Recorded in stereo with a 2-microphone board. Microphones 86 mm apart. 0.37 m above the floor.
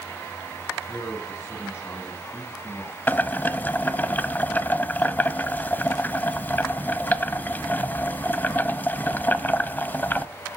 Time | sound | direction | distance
0.8 | a man speaking | 35° left (ahead or behind) | 3 m
3.1 | boiling | 25° left (ahead or behind) | 0.6 m